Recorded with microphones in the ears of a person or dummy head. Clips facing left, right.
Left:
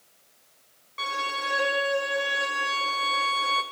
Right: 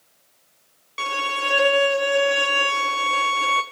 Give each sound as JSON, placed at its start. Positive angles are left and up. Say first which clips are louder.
{"t": 1.0, "sound": "a violin", "louder": "right 5 dB", "side_deg": -50, "distance_m": 0.7}